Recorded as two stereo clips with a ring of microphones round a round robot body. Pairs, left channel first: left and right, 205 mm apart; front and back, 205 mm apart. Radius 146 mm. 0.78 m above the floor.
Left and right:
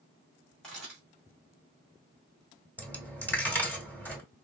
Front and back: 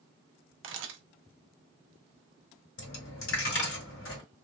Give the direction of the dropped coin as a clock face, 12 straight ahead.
12 o'clock.